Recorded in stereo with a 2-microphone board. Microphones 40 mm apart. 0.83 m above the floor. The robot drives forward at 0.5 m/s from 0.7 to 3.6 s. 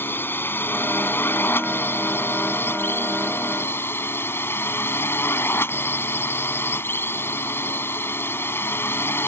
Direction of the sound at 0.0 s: 65° left (ahead or behind).